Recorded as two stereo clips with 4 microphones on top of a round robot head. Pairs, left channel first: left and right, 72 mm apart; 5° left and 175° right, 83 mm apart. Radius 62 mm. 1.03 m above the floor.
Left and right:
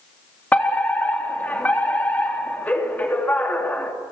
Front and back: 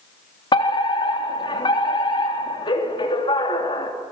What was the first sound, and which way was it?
A fire alarm, 25° left.